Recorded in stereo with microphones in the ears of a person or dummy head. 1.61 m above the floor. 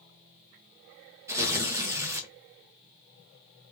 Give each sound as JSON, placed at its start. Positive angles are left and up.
{"t": 1.3, "sound": "tearing paper", "side_deg": -15, "distance_m": 1.2}